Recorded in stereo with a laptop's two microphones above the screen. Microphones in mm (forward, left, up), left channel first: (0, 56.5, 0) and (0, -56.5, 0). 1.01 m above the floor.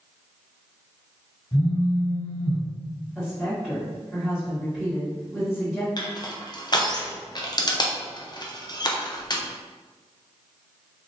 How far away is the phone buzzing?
About 1.7 m.